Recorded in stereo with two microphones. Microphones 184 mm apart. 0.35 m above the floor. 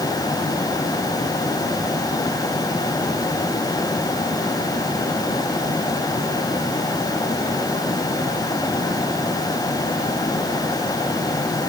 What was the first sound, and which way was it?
Only background noise.